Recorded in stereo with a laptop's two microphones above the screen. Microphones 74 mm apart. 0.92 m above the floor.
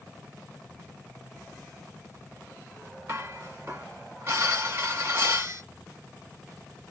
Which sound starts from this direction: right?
Dishes clattering, at 3.1 s.